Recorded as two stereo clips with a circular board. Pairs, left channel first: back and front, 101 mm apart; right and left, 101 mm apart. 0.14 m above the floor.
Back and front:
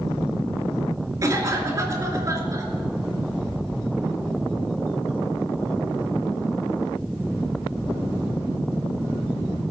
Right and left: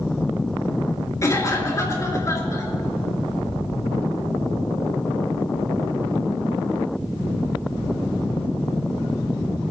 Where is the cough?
45° right, 2.5 m.